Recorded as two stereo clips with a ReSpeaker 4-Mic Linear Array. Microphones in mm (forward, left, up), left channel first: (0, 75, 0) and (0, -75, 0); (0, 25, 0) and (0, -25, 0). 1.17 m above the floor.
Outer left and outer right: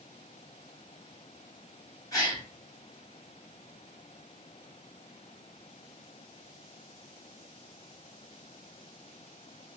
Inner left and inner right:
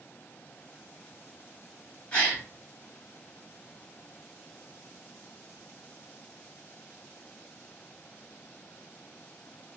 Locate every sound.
2.1 s a gasp: 20° left (ahead or behind), 2 m